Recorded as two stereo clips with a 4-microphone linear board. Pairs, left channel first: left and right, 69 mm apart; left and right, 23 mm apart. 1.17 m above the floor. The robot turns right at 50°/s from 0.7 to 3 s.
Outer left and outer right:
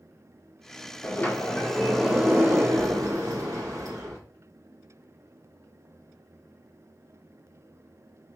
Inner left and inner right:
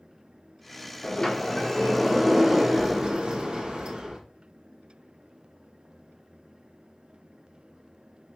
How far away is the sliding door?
About 1.0 m.